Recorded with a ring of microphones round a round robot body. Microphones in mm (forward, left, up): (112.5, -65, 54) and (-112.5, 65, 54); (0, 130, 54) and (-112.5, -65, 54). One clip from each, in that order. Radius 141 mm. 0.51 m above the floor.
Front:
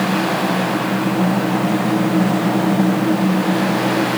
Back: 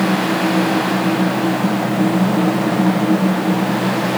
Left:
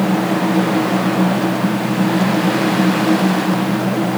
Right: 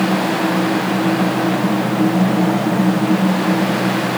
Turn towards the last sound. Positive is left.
No sound to turn to.